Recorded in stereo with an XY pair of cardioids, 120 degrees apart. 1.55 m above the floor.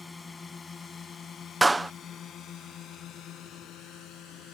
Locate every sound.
0.0 s a drone: 20° left; by 4.5 s 75° left
1.6 s a clap: 15° right